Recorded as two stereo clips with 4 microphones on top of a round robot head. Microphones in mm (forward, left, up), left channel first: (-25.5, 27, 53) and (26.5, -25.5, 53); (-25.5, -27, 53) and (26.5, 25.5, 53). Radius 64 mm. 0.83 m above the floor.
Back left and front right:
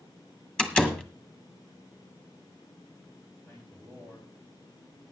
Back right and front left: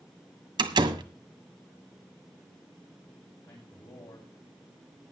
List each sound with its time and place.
0.6 s a door slam: 60° left, 1.6 m
3.5 s a man speaking: 155° right, 5 m